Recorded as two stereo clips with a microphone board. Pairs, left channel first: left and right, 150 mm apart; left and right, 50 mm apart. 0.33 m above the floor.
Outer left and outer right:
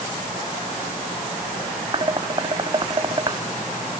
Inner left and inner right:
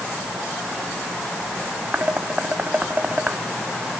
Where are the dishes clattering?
30° right (ahead or behind).